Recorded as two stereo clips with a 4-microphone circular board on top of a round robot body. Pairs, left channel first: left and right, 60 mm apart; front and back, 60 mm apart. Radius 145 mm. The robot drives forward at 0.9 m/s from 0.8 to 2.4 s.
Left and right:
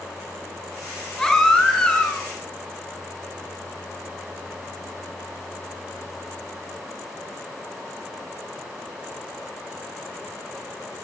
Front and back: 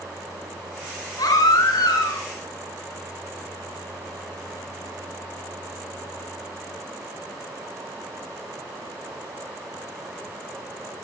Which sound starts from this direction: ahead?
A baby crying, at 1.2 s.